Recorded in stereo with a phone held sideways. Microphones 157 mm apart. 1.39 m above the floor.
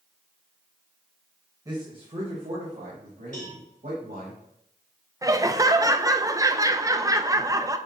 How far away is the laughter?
About 0.6 m.